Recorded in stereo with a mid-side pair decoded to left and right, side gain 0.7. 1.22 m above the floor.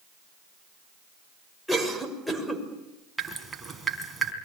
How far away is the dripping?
About 4 m.